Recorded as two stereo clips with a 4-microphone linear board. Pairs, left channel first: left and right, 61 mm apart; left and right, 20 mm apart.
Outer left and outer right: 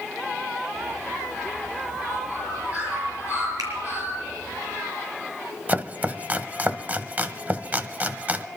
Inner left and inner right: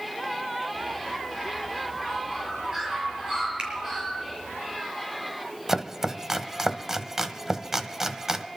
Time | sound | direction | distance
0.8 | a bird | 30° right (ahead or behind) | 6.5 m
3.6 | a finger snap | 80° right | 5 m
5.7 | chopping | 25° right (ahead or behind) | 0.7 m